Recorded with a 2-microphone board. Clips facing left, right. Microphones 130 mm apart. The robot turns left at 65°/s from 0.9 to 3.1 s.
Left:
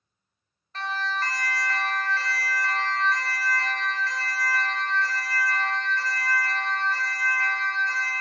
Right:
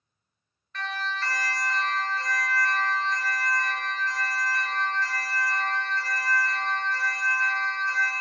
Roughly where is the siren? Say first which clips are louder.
Left 3 dB; left.